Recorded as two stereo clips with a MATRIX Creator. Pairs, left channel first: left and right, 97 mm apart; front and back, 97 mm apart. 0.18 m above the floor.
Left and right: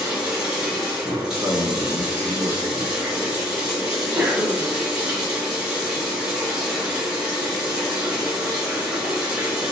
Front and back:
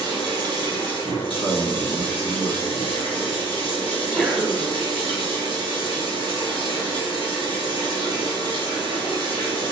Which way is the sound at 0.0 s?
5° right.